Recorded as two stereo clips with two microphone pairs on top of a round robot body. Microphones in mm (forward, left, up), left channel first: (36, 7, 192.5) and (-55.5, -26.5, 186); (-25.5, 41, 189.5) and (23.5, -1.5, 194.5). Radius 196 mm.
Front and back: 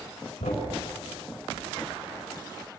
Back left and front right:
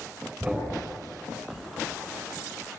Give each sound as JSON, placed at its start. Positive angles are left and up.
{"t": 0.4, "sound": "a thud", "azimuth_deg": 30, "distance_m": 4.0}